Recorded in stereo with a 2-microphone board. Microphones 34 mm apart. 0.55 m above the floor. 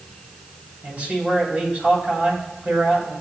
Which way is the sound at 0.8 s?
55° right (ahead or behind).